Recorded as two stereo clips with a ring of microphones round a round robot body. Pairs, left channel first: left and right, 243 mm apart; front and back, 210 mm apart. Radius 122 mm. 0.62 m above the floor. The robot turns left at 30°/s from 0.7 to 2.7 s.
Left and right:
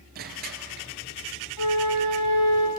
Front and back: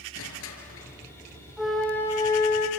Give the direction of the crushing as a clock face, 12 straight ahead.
1 o'clock.